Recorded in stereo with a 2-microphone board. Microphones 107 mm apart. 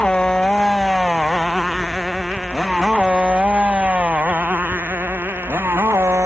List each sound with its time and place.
0.0 s a motorcycle: 10° left (ahead or behind); by 6.3 s 25° right (ahead or behind)